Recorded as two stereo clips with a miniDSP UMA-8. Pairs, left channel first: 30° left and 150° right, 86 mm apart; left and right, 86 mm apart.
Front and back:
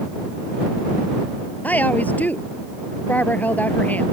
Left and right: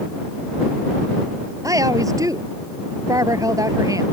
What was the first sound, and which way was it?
A woman speaking, 40° right.